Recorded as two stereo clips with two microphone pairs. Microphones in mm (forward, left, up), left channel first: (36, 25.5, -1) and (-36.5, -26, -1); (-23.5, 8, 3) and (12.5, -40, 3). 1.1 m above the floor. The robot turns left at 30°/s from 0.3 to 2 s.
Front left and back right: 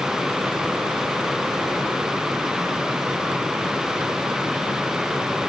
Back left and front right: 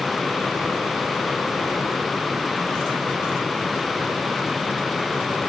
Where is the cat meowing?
No cat meowing in this recording.